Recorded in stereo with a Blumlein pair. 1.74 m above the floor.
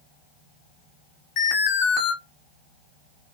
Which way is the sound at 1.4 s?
40° left.